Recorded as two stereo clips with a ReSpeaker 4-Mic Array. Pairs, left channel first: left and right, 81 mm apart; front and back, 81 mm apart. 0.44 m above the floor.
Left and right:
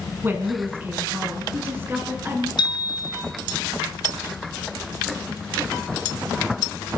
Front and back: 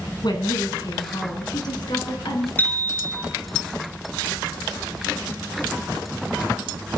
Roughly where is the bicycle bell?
Left.